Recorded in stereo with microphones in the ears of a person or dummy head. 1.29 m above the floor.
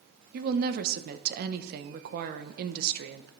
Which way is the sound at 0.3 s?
60° right (ahead or behind).